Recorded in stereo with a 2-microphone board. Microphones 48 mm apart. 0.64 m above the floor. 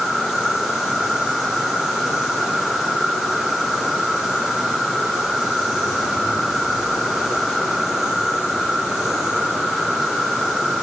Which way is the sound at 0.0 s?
10° right (ahead or behind).